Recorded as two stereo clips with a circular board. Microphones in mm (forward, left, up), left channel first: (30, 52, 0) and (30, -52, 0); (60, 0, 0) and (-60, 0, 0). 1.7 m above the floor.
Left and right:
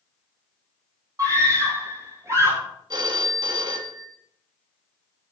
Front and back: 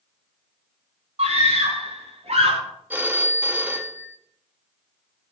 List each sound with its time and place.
1.2 s a scream: 150° right, 5 m
2.9 s a phone ringing: 110° right, 1.4 m